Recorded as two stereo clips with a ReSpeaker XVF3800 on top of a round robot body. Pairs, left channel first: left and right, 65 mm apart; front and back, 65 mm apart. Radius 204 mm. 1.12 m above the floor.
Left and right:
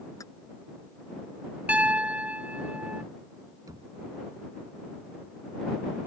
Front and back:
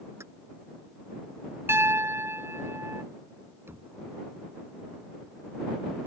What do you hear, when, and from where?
0.2 s keys jangling: 130° left
1.7 s a piano: 150° right
3.7 s knocking: 125° right